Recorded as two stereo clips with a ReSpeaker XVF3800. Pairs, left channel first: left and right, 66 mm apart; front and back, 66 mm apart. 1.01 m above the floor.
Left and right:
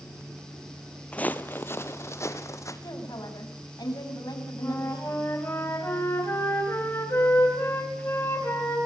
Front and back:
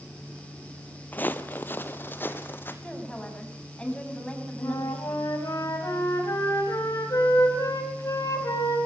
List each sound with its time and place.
1.1 s footsteps: 35° left, 1.1 m; by 2.7 s 55° left, 2.5 m
2.8 s a woman speaking: 75° left, 8 m
4.6 s a flute: 35° left, 6 m